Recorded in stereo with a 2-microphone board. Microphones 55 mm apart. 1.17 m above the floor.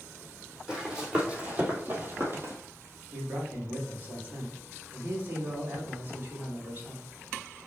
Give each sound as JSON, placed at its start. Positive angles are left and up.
{"t": 0.7, "sound": "running footsteps", "side_deg": -15, "distance_m": 2.5}
{"t": 3.1, "sound": "a man speaking", "side_deg": -35, "distance_m": 3.0}